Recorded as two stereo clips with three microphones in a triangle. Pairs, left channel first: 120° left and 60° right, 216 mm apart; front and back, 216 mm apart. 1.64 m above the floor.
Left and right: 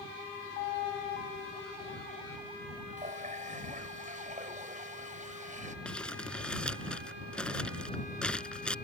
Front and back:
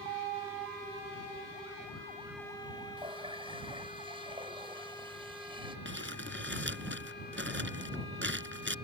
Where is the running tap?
115° right.